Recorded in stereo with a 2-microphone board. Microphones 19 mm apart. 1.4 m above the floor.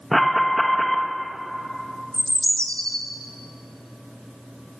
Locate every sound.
0.1 s an alarm: 10° left (ahead or behind), 1.8 m
2.1 s a bird: 55° left (ahead or behind), 1.9 m